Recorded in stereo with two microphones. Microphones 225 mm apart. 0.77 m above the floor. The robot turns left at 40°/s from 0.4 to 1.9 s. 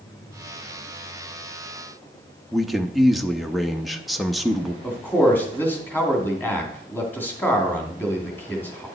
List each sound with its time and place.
2.5 s a man speaking: centre (ahead or behind), 0.6 m
4.8 s a man speaking: 10° left (ahead or behind), 2 m